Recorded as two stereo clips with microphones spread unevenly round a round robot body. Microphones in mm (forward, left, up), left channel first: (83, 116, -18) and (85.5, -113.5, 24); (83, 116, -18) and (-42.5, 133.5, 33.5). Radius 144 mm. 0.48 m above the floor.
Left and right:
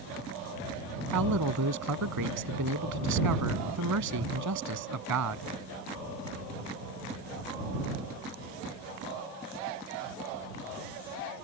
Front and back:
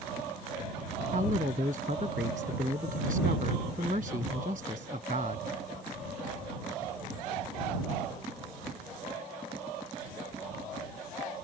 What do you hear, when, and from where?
1.1 s a man speaking: 120° right